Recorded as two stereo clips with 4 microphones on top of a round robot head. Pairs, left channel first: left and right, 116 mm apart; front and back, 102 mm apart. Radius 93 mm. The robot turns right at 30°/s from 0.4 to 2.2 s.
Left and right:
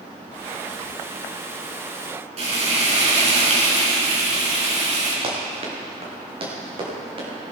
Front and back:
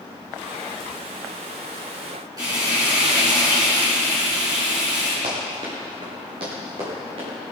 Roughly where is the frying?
Behind right.